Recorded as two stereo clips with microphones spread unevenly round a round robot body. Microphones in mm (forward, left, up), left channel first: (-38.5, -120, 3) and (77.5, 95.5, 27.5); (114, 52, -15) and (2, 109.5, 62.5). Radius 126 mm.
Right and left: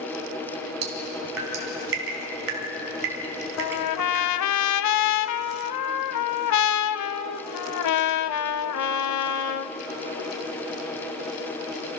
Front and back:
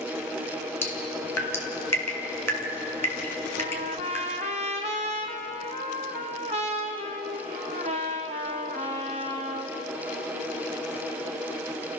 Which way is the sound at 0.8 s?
25° left.